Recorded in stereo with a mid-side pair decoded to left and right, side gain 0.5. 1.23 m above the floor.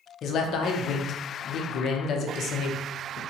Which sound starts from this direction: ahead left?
A man speaking, at 0.2 s.